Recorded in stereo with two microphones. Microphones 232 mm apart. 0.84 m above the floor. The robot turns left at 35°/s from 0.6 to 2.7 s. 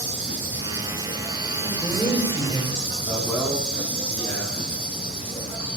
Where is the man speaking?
10° left (ahead or behind), 5.5 m.